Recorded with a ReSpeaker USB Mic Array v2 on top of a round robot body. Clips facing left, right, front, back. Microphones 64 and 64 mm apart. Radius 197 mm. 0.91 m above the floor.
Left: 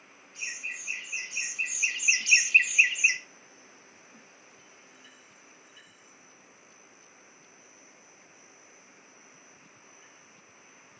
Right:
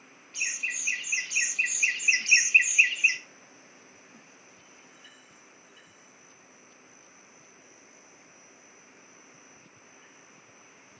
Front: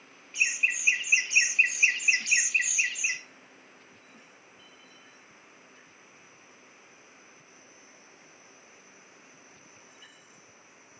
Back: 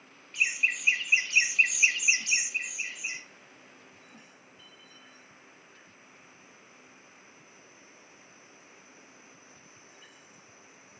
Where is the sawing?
I don't hear sawing.